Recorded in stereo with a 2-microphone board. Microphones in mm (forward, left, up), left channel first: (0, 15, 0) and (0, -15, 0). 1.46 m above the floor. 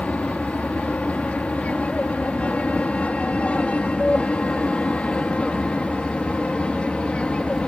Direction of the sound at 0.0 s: 55° left (ahead or behind).